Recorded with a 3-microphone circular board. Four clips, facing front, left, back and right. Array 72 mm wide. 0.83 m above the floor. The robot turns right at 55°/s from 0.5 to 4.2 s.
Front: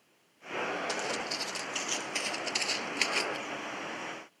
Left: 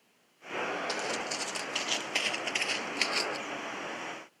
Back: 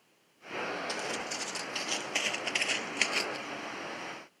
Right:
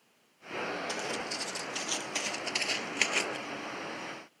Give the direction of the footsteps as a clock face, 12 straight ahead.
11 o'clock.